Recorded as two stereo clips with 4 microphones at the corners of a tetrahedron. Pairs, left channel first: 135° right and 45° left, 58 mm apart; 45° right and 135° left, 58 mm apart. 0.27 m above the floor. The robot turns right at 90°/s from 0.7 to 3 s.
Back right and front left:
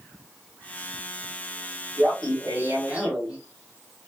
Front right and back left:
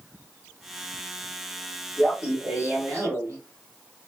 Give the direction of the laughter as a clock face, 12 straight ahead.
11 o'clock.